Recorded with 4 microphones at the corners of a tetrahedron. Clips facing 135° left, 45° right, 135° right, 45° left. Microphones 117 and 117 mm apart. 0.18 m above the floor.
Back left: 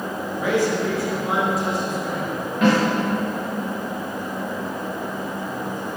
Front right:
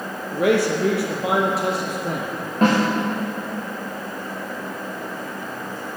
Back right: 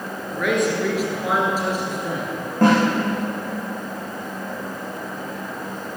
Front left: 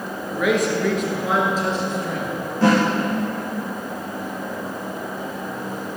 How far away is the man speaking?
About 3 m.